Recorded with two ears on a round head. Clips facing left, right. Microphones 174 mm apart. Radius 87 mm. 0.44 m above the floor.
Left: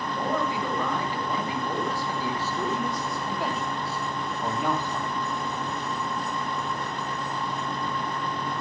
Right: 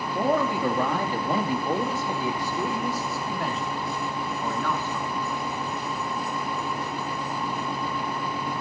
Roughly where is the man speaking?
Right.